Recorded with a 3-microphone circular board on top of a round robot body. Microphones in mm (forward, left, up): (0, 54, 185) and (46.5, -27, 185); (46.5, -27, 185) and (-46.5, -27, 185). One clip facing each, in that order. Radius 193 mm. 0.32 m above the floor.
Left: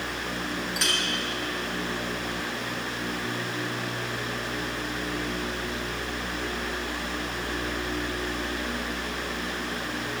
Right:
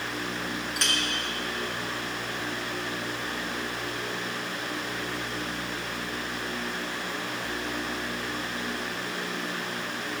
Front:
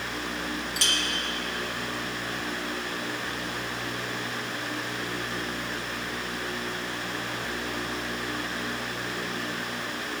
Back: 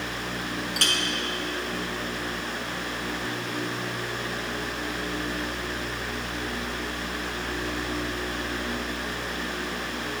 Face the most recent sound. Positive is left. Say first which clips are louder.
# even, back 4 dB
turn(degrees=-155)